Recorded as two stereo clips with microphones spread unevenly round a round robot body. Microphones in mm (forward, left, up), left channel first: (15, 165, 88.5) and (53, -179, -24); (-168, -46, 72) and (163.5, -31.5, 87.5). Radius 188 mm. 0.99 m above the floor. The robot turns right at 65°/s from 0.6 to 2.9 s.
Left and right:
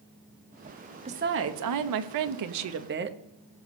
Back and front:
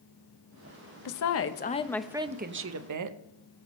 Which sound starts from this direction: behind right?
A woman speaking, at 1.1 s.